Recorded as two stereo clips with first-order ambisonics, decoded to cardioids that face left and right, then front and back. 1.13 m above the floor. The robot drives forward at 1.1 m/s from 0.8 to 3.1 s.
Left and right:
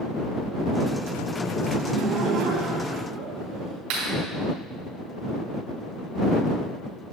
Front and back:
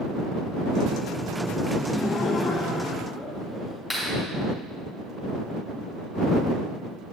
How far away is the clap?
About 4 m.